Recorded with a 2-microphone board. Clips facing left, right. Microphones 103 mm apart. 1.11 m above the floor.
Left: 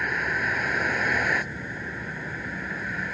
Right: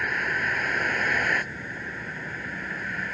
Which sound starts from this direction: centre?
A vehicle, at 0.0 s.